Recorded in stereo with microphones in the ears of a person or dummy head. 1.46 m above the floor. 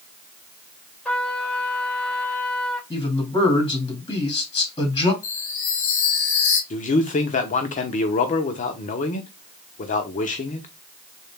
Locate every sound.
1.1 s a trumpet: 10° left (ahead or behind), 2.5 m
2.9 s a man speaking: 30° left (ahead or behind), 2.5 m
5.2 s a chime: 85° left, 1.3 m
6.7 s a man speaking: 40° left (ahead or behind), 1.0 m